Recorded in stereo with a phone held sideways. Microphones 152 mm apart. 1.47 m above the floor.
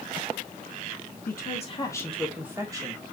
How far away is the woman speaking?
About 1.3 m.